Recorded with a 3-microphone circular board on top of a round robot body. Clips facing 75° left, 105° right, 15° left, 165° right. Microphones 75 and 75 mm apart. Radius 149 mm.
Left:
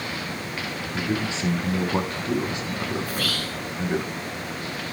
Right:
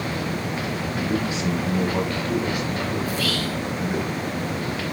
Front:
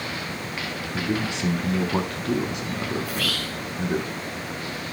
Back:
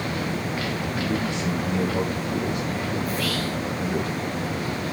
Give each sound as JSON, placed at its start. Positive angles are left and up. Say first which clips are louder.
{"t": 0.9, "sound": "a man speaking", "louder": "right 1 dB, front 2 dB", "azimuth_deg": 15, "distance_m": 5.5}
{"t": 3.0, "sound": "whispering", "louder": "right 4 dB, back 3 dB", "azimuth_deg": 35, "distance_m": 8.0}